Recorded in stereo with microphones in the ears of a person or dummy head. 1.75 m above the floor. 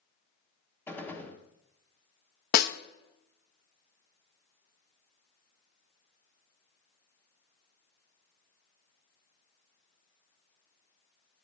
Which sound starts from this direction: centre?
A gunshot, at 0.9 s.